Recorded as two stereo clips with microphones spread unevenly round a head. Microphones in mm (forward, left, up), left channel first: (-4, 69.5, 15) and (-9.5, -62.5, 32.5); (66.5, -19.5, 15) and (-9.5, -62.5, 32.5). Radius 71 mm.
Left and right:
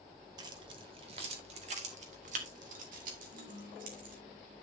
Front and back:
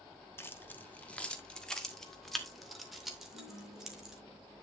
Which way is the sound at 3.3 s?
155° right.